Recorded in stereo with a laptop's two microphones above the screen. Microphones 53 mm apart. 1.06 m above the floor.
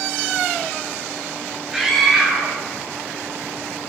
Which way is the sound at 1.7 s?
5° right (ahead or behind).